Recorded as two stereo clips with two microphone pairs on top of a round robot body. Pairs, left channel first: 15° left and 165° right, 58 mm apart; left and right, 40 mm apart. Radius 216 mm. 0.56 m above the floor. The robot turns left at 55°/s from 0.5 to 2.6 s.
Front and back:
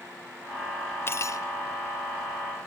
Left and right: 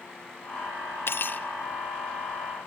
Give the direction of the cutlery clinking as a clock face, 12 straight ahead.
10 o'clock.